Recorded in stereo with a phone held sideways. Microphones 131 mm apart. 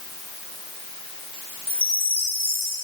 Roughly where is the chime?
Centre.